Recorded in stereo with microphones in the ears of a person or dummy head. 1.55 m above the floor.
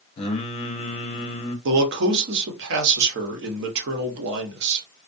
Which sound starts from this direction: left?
Singing, at 0.2 s.